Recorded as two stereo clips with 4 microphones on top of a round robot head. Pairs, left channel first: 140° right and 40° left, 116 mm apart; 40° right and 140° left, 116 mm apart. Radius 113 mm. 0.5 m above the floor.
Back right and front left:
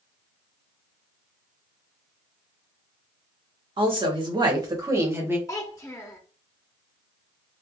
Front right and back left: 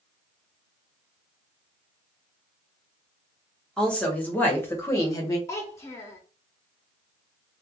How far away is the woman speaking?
About 1.6 m.